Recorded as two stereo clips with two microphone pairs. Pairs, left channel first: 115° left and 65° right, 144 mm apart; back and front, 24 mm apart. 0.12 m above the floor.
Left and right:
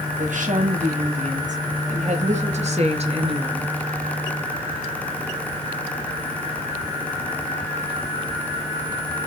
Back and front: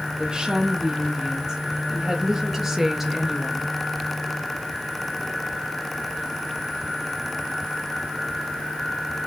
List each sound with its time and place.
0.2 s a woman speaking: 55° right, 4.5 m; by 3.7 s 85° right, 2.0 m